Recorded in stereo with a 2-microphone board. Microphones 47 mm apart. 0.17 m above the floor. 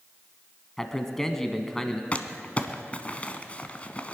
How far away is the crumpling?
About 0.9 m.